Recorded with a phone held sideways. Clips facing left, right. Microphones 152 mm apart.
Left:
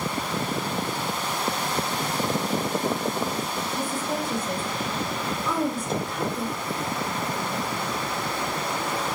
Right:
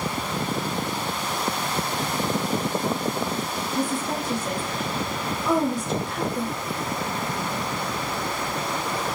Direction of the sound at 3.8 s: 80° right.